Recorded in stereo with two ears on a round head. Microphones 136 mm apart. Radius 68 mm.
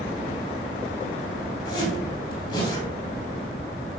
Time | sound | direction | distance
1.6 | a zipper | 30° left (ahead or behind) | 3 m